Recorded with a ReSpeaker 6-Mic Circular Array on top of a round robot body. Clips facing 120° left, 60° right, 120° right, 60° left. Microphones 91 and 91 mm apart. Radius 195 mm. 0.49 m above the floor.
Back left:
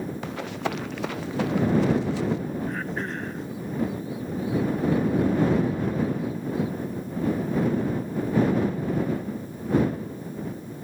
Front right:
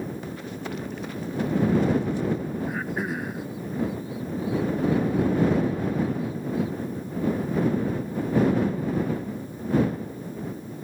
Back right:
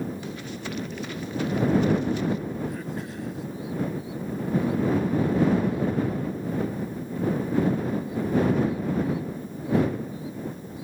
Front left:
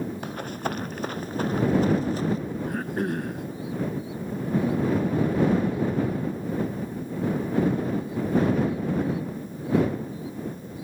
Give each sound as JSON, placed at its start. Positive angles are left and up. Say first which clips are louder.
{"t": 0.2, "sound": "running footsteps", "louder": "back left 4 dB, front left 4 dB", "azimuth_deg": 100}
{"t": 2.7, "sound": "throat clearing", "louder": "front right 1 dB, front left 5 dB", "azimuth_deg": 20}